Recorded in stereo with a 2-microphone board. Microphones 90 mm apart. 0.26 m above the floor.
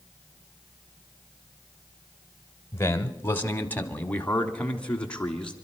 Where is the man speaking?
25° left (ahead or behind), 1.0 m; by 5.5 s 10° left (ahead or behind), 2.5 m.